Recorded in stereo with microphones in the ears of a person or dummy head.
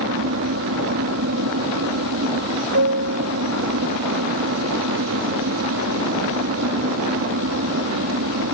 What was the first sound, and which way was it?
An aircraft, 70° right (ahead or behind).